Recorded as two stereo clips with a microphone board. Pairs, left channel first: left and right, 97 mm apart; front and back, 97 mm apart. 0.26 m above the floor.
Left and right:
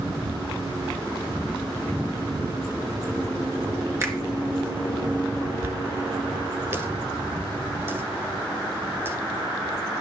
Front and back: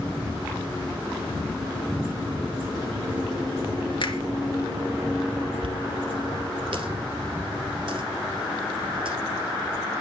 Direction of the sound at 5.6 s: 155° right.